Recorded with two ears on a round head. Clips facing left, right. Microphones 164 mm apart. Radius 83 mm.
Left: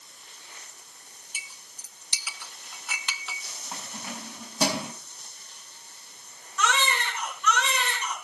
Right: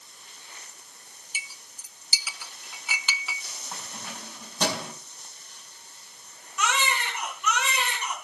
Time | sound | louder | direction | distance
1.3 | a clink | right 5 dB | 5° right (ahead or behind) | 0.7 m
3.7 | keys jangling | left 3 dB | 5° left (ahead or behind) | 4 m
6.6 | a baby crying | left 1 dB | 10° right (ahead or behind) | 4.5 m